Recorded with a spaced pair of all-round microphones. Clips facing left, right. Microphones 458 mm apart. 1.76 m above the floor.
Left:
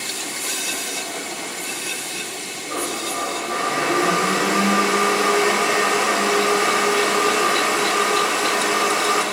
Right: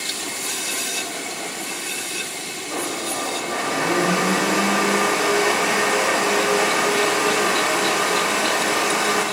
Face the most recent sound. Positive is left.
turn(degrees=-10)  # may be behind; listen again after turning